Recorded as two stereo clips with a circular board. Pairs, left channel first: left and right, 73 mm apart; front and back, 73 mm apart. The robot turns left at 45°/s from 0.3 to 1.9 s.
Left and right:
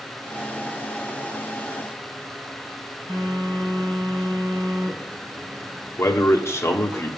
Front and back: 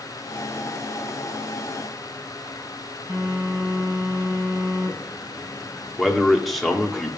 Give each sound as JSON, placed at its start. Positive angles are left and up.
{"t": 3.1, "sound": "a phone buzzing", "azimuth_deg": -120, "distance_m": 5.0}
{"t": 6.0, "sound": "a man speaking", "azimuth_deg": 90, "distance_m": 1.0}